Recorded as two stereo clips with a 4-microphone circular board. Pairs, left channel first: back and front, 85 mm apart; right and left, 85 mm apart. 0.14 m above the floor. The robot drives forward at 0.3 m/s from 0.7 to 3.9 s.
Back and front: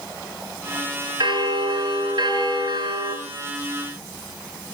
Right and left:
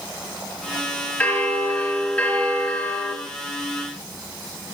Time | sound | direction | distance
1.2 | a bell | 20° right | 2.5 m